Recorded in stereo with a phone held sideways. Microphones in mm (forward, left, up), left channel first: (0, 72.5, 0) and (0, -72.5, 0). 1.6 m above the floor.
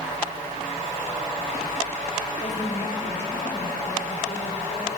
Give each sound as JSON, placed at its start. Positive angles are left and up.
{"t": 2.4, "sound": "a woman speaking", "side_deg": 50, "distance_m": 3.5}